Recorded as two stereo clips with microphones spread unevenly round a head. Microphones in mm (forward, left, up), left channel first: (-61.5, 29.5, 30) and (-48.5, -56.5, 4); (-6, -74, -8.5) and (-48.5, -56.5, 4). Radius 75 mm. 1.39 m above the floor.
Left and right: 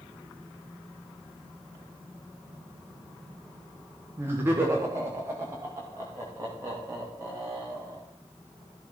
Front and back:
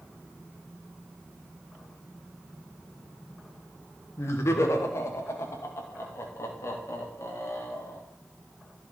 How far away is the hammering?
I don't hear hammering.